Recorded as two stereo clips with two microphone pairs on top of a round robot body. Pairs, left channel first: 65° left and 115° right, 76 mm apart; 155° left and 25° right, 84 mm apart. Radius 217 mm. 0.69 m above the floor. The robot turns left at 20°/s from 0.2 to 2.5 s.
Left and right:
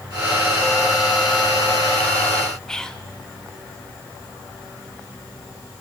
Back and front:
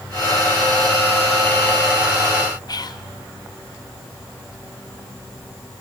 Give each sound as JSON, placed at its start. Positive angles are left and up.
{"t": 2.7, "sound": "whispering", "azimuth_deg": 140, "distance_m": 0.9}